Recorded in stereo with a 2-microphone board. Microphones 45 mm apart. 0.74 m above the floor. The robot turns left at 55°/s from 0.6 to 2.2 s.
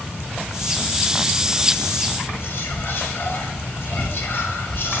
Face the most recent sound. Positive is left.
turn(degrees=55)  # may be behind; listen again after turning